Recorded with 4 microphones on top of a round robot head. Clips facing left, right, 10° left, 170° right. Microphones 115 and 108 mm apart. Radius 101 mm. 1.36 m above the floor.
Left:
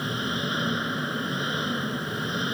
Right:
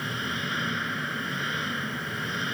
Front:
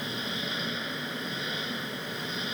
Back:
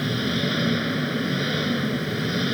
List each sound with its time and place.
0.0 s an engine running: 165° left